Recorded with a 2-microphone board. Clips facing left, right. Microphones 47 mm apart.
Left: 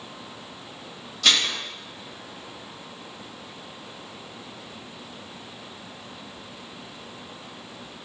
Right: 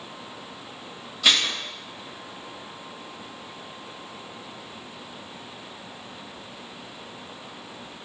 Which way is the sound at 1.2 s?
10° right (ahead or behind).